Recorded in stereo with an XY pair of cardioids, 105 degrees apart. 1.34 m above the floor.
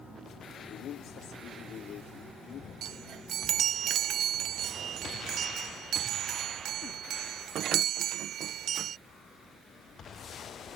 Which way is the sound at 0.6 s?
70° left.